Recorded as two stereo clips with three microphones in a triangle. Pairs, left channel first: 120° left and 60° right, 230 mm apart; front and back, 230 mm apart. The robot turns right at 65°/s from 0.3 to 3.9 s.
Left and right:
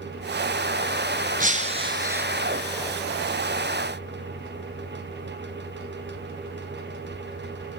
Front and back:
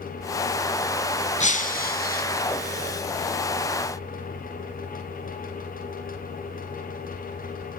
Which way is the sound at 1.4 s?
35° right.